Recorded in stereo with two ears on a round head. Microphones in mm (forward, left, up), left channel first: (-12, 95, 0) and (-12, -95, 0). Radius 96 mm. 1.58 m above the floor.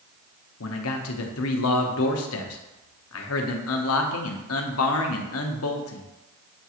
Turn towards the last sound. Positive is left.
turn(degrees=70)  # may be behind; listen again after turning